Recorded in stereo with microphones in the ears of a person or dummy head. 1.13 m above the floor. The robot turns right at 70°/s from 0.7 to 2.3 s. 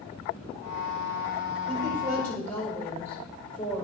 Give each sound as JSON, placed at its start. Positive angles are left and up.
{"t": 1.7, "sound": "a woman speaking", "azimuth_deg": -30, "distance_m": 5.0}